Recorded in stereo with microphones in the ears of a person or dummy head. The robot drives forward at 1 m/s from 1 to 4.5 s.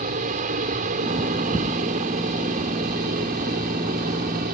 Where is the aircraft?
40° right (ahead or behind); by 4.5 s 45° right (ahead or behind).